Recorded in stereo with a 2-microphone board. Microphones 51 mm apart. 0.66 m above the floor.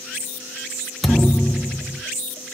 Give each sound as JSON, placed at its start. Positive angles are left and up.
{"t": 1.0, "sound": "a thud", "side_deg": 5, "distance_m": 1.0}